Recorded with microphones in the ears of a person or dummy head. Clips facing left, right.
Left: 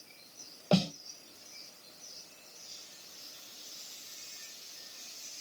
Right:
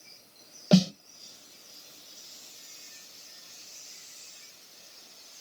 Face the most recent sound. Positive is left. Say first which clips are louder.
# right 6 dB
turn(degrees=-20)  # may be behind; listen again after turning